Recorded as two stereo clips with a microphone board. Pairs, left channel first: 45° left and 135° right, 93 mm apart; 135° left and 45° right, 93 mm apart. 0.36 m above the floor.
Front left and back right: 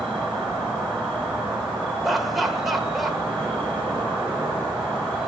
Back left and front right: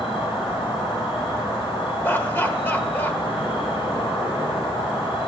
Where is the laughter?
140° left, 1.1 m.